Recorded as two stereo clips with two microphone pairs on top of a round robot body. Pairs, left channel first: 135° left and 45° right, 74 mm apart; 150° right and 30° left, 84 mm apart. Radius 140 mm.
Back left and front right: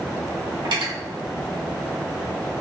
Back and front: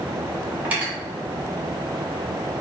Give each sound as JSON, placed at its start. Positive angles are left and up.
{"t": 0.7, "sound": "cutlery clinking", "azimuth_deg": -40, "distance_m": 1.5}